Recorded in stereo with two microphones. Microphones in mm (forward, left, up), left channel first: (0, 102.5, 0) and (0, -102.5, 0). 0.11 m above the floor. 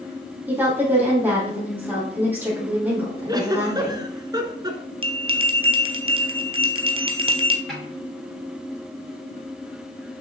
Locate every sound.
0.5 s a woman speaking: 10° right (ahead or behind), 3.5 m
3.3 s a giggle: 20° right (ahead or behind), 0.9 m
5.0 s a bell: 25° right (ahead or behind), 0.7 m
7.7 s a snare drum: centre (ahead or behind), 4 m